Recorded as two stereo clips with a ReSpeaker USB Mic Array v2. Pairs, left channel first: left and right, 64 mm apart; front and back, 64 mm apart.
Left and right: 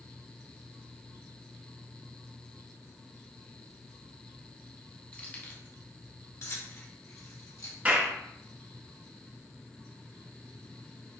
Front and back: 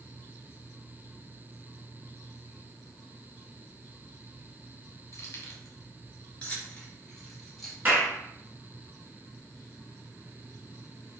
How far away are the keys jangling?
About 1.3 m.